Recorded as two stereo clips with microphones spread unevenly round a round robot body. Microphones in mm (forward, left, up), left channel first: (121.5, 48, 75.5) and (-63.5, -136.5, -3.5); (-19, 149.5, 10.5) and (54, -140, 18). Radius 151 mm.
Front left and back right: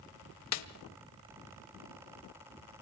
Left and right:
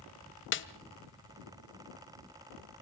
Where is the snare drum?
55° left, 1.2 m.